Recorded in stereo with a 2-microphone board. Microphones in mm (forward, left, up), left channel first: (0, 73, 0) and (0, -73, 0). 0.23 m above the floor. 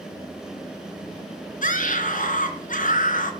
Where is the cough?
No cough in this recording.